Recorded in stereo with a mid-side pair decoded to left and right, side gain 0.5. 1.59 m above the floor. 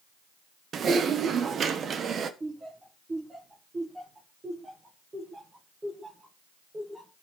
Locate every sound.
0.7 s typing on a keyboard: 45° right, 1.2 m
2.4 s laughter: 20° right, 2 m